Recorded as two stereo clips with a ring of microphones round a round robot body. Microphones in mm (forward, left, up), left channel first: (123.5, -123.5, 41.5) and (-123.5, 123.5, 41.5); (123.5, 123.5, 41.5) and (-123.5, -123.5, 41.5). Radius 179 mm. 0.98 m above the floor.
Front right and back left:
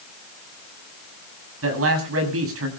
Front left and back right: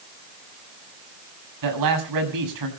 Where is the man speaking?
170° right, 7 m.